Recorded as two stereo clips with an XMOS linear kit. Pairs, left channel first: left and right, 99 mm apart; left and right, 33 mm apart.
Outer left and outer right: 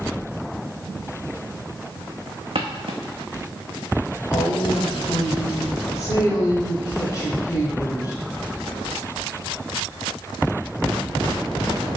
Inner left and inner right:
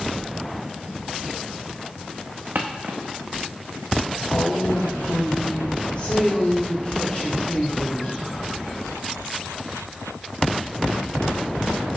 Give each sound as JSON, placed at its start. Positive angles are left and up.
{"t": 2.5, "sound": "footsteps", "side_deg": -75, "distance_m": 1.0}
{"t": 4.3, "sound": "a woman speaking", "side_deg": 35, "distance_m": 2.0}